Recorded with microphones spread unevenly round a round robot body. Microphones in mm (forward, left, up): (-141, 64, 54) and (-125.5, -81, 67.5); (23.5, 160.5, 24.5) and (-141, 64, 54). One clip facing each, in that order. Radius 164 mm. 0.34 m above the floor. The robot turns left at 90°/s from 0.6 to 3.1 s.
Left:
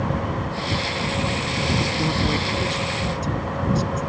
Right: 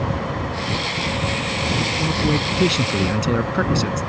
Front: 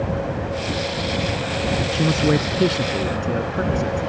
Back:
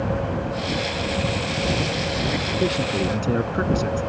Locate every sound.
1.9 s a man speaking: 20° left; by 4.1 s 85° right